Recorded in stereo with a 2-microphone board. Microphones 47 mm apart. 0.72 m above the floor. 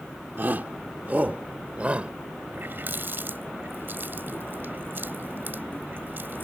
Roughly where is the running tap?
Right.